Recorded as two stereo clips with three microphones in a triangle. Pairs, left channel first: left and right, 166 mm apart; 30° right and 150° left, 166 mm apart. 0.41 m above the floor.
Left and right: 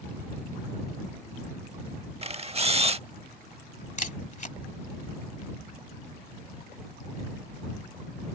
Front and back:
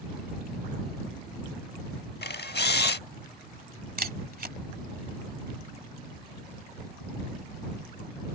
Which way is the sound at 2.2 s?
35° right.